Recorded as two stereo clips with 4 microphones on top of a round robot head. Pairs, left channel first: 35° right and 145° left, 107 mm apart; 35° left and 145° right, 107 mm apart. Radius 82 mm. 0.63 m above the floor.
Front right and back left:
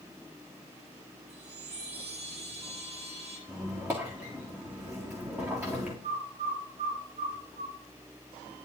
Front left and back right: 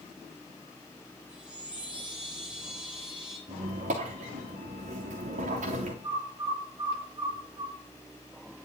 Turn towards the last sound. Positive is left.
turn(degrees=160)